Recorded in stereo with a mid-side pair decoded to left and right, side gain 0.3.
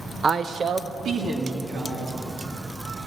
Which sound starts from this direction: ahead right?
A woman speaking, at 0.2 s.